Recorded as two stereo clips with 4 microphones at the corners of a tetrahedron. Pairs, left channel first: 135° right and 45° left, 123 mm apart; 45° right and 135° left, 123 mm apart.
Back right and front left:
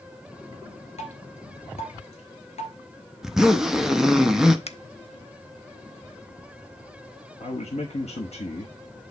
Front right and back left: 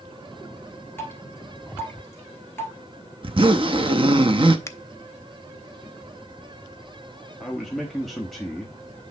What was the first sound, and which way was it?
Dripping, 115° right.